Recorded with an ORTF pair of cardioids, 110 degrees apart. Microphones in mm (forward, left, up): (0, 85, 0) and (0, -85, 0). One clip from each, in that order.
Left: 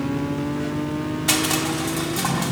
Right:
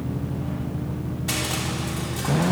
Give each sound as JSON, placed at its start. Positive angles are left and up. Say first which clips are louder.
{"t": 1.3, "sound": "crushing", "louder": "left 5 dB", "azimuth_deg": 45, "distance_m": 4.0}